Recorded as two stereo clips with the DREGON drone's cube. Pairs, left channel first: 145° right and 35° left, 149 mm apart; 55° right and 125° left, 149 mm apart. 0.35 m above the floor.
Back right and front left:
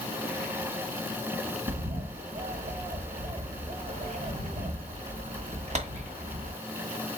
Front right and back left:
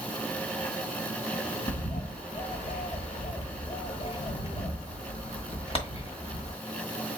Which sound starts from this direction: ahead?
A bird, at 1.7 s.